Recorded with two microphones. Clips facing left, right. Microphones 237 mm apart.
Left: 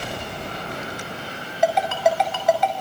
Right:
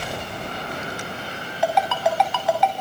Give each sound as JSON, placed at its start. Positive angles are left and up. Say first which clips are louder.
{"t": 1.6, "sound": "a ringtone", "louder": "left 2 dB", "side_deg": 50, "distance_m": 5.5}